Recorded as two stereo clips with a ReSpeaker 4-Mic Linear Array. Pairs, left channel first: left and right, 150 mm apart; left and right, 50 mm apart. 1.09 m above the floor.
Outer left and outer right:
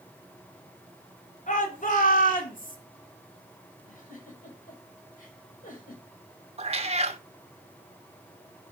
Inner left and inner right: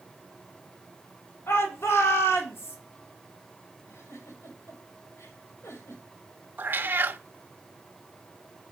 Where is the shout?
60° left (ahead or behind), 4 m; by 2.8 s 65° left (ahead or behind), 3 m.